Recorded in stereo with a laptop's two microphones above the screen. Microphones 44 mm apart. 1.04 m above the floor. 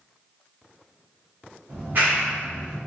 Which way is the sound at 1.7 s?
50° right (ahead or behind).